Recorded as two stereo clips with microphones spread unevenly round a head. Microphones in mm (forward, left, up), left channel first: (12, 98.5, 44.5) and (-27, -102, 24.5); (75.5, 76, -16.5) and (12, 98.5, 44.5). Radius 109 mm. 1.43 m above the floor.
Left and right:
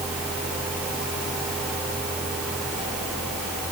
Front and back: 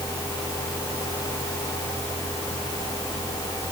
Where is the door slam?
I don't hear a door slam.